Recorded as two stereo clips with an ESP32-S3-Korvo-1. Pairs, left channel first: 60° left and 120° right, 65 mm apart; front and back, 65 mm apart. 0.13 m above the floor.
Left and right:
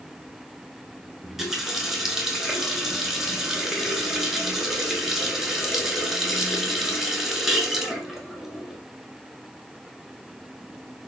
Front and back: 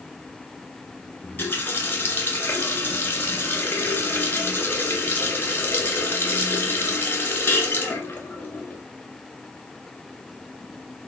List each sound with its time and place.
1.2 s a running tap: 40° right, 1.1 m